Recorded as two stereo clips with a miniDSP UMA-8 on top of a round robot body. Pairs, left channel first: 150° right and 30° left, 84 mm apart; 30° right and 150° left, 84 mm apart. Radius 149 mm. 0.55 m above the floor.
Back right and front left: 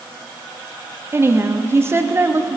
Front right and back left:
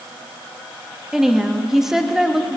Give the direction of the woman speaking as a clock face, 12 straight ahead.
10 o'clock.